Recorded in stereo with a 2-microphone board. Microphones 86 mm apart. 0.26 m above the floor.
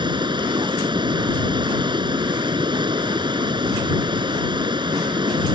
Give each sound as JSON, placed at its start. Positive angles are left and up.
{"t": 0.0, "sound": "running water", "side_deg": -70}